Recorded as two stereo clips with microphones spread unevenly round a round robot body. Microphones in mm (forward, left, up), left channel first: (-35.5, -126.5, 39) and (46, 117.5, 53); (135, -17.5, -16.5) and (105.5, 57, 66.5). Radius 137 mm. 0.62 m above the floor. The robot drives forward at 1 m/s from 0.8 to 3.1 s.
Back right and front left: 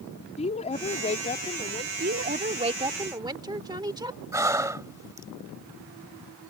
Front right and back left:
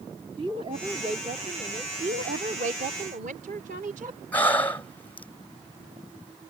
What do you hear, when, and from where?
0.4 s a woman speaking: 165° right; by 1.9 s 175° right
2.0 s a woman speaking: 120° left; by 4.2 s 145° left
4.3 s breathing: 10° right